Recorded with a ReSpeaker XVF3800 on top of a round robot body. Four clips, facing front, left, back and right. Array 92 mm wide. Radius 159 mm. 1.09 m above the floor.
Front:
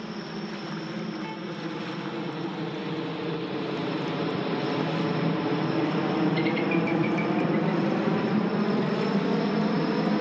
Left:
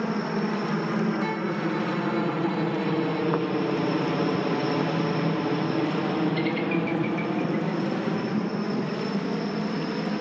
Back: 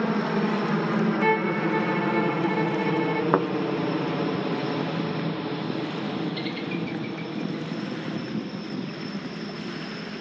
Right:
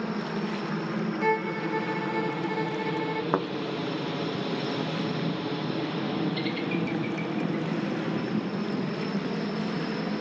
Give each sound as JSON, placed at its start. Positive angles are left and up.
{"t": 0.0, "sound": "a helicopter", "azimuth_deg": 160}
{"t": 1.2, "sound": "a violin", "azimuth_deg": -150}
{"t": 3.3, "sound": "a thud", "azimuth_deg": -165}